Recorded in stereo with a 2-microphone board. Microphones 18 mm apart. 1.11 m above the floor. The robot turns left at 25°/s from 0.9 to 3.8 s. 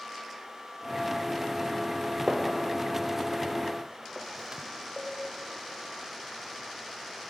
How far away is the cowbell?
About 1.4 m.